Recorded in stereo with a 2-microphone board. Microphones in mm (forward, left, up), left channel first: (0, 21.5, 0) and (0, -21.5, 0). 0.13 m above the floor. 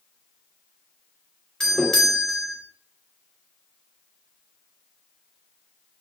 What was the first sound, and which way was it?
A doorbell, 10° left (ahead or behind).